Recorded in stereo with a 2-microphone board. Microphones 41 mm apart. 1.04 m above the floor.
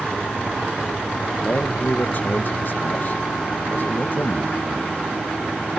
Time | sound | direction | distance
1.4 | a man speaking | 50° left (ahead or behind) | 0.9 m